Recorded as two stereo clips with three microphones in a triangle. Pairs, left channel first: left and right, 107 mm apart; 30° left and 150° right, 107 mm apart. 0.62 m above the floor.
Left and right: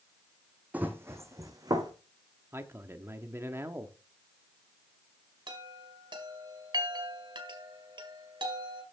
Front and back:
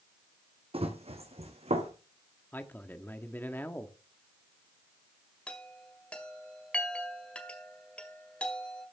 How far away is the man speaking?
About 1.1 m.